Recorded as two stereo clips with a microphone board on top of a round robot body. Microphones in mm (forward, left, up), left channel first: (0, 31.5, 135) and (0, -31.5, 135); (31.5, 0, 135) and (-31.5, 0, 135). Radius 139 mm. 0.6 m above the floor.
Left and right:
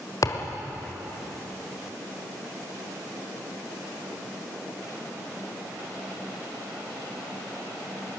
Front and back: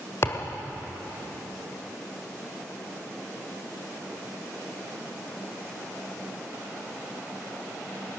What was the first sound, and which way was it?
A thud, 50° left.